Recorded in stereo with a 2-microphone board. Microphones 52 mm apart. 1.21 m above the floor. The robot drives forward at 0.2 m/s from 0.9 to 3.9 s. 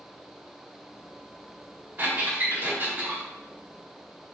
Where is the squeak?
45° right (ahead or behind), 2 m; by 3.2 s 40° right (ahead or behind), 2.5 m.